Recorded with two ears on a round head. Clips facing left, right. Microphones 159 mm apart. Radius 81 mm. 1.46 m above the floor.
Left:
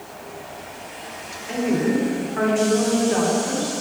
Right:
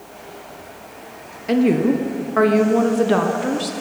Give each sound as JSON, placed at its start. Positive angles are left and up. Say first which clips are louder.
{"t": 1.5, "sound": "a woman speaking", "louder": "right 5 dB", "side_deg": -60, "distance_m": 0.8}